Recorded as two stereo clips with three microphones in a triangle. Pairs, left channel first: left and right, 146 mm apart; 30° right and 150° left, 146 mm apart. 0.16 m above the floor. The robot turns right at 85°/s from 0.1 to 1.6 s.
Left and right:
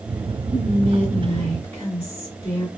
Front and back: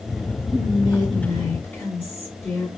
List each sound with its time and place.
0.5 s whispering: 65° right, 1.9 m; by 2.7 s 30° left, 1.9 m